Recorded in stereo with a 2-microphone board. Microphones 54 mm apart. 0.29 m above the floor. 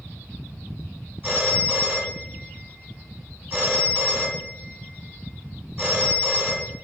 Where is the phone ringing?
20° right (ahead or behind), 1.7 m.